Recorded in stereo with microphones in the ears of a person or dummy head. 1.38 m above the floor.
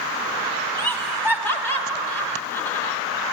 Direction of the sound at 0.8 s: 15° left (ahead or behind).